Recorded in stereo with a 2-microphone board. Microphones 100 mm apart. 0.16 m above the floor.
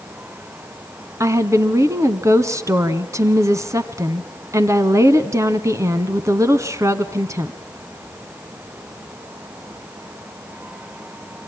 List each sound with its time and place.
1.2 s a woman speaking: 30° right (ahead or behind), 1.4 m